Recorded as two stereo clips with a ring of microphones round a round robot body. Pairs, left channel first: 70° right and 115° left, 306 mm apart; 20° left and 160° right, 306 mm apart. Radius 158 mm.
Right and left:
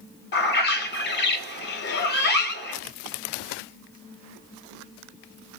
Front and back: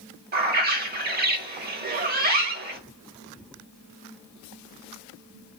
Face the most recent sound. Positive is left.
turn(degrees=-110)